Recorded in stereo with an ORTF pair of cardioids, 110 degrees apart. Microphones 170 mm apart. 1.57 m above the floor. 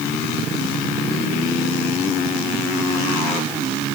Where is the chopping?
No chopping in this recording.